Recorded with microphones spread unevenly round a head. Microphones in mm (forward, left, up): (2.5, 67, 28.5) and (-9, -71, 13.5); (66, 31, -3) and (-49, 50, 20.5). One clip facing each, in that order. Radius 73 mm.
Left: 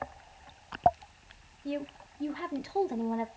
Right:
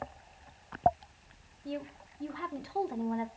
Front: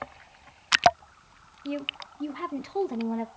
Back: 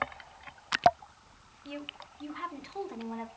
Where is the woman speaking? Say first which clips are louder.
Left 4 dB, front 9 dB; 15° left, 0.7 m.